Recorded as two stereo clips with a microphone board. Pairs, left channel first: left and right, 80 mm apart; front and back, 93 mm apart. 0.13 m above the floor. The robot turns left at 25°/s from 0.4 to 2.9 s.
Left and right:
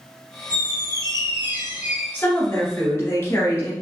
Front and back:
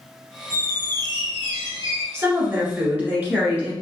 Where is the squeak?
125° right, 1.5 m; by 2.0 s 165° right, 1.5 m.